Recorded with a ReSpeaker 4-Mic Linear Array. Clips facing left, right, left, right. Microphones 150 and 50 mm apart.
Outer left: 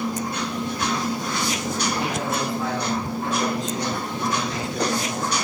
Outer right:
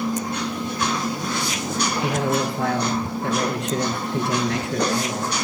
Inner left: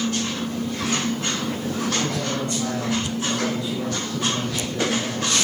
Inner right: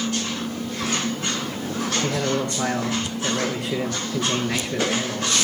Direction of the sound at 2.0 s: 65° right (ahead or behind).